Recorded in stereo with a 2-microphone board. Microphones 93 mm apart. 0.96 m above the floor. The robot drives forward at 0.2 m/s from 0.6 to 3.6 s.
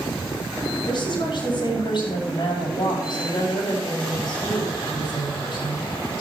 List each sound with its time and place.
0.9 s a woman speaking: 60° left (ahead or behind), 6 m; by 5.9 s 55° left (ahead or behind), 6.5 m